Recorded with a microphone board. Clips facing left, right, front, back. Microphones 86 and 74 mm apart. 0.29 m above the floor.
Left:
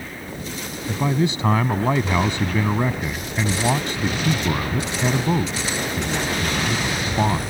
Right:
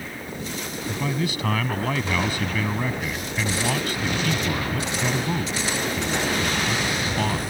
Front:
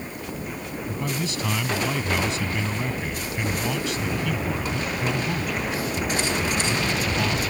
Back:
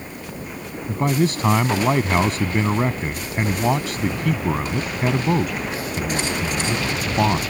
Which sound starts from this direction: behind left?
A man speaking, at 0.9 s.